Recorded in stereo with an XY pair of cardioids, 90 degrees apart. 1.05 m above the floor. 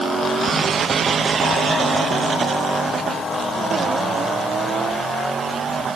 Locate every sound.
Only background noise.